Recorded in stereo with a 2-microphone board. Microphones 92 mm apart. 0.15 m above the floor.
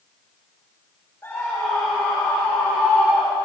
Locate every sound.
1.2 s a scream: 30° left (ahead or behind), 9.5 m; by 3.4 s 20° left (ahead or behind), 8 m